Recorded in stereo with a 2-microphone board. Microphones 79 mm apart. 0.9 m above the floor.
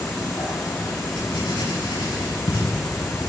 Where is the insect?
55° left (ahead or behind), 7.5 m.